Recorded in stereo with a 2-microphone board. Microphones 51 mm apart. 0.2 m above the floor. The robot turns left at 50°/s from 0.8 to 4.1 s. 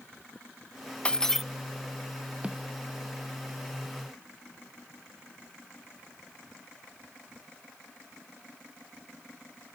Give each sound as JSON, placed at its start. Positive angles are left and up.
{"t": 1.1, "sound": "breaking glass", "side_deg": 20}
{"t": 2.4, "sound": "a snare drum", "side_deg": -20}